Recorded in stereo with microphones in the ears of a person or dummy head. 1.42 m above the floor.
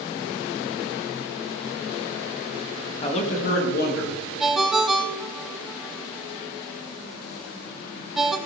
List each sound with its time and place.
3.0 s a man speaking: 30° left (ahead or behind), 1.9 m; by 4.3 s 65° left (ahead or behind), 2.5 m
4.4 s a ringtone: centre (ahead or behind), 0.8 m